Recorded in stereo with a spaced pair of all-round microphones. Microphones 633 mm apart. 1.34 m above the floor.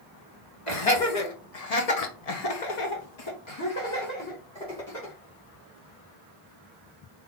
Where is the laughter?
55° left (ahead or behind), 1.7 m; by 5.1 s 5° left (ahead or behind), 2 m.